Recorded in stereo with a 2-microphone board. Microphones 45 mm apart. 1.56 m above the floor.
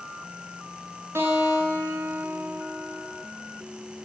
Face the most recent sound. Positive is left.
turn(degrees=-70)  # may be behind; listen again after turning